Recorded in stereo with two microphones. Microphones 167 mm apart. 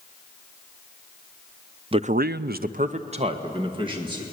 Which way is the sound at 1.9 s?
35° right (ahead or behind).